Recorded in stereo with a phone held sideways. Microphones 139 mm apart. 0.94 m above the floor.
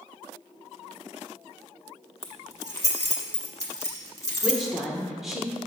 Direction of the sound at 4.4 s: Centre (ahead or behind).